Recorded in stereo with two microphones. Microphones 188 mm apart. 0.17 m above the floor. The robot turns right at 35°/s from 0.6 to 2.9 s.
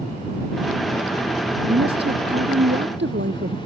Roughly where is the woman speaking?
Behind right.